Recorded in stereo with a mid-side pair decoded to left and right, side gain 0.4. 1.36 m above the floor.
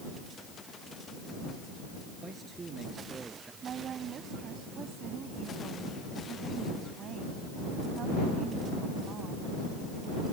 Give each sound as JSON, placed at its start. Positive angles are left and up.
{"t": 2.2, "sound": "a man speaking", "azimuth_deg": -35}
{"t": 3.6, "sound": "a woman speaking", "azimuth_deg": -60}